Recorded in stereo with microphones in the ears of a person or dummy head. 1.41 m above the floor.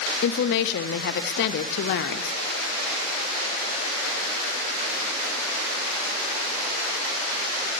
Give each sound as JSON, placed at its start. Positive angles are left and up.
{"t": 0.2, "sound": "a woman speaking", "side_deg": 55, "distance_m": 0.5}